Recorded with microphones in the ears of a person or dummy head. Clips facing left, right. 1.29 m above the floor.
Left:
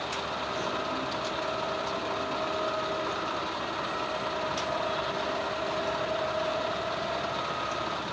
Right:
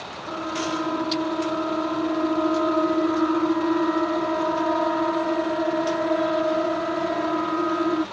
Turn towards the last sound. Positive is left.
turn(degrees=-65)  # may be behind; listen again after turning